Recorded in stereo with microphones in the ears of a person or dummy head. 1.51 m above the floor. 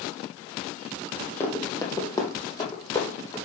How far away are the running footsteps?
About 2 m.